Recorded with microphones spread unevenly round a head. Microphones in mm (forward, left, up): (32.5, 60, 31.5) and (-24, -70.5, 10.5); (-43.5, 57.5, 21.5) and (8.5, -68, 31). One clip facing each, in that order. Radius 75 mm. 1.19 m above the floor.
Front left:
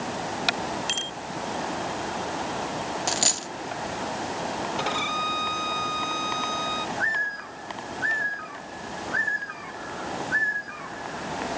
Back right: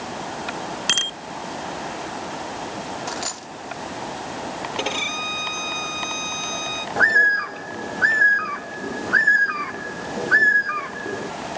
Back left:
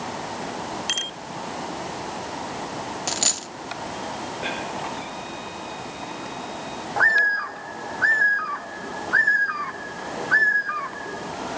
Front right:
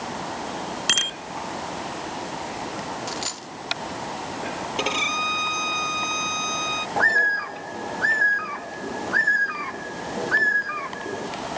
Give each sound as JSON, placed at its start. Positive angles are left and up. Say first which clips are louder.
{"t": 0.9, "sound": "a bicycle bell", "louder": "back right 2 dB, front right 2 dB", "azimuth_deg": -95}
{"t": 3.1, "sound": "a dropped coin", "louder": "front left 1 dB, back left 2 dB", "azimuth_deg": 95}
{"t": 4.8, "sound": "a violin", "louder": "back right 1 dB, front right 4 dB", "azimuth_deg": -45}
{"t": 7.0, "sound": "a bird", "louder": "back right 9 dB, even", "azimuth_deg": -135}